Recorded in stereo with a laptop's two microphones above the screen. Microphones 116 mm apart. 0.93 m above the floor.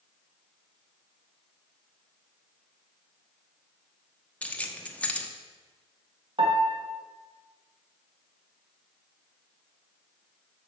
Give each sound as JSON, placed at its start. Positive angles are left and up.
{"t": 4.4, "sound": "keys jangling", "side_deg": 10, "distance_m": 1.0}
{"t": 6.4, "sound": "a piano", "side_deg": -55, "distance_m": 1.1}